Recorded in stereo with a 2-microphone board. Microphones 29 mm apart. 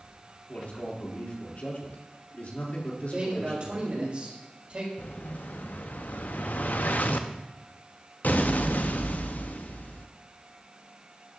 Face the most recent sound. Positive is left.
turn(degrees=70)  # may be behind; listen again after turning